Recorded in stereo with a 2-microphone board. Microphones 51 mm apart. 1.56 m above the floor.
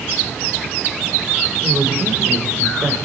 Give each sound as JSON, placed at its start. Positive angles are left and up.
{"t": 1.6, "sound": "a woman speaking", "side_deg": -40, "distance_m": 5.5}